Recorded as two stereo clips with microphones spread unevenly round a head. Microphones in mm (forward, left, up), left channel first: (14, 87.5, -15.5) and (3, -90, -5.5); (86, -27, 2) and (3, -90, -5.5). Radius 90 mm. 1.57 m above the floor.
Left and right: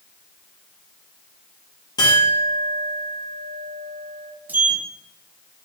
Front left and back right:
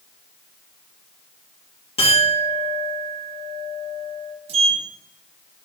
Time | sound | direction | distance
2.0 | a clink | 20° left | 1.8 m
4.5 | a sliding door | 175° right | 0.5 m